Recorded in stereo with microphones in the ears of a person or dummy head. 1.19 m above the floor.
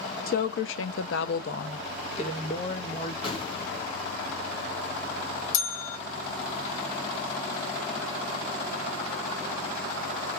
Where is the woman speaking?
50° left (ahead or behind), 0.5 m; by 3.1 s 30° left (ahead or behind), 1.4 m.